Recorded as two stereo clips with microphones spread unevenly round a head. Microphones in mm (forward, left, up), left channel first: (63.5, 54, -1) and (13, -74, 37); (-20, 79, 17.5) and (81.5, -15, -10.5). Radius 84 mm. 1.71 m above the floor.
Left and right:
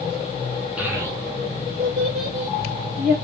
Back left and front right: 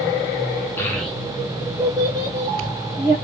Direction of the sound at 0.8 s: 170° right.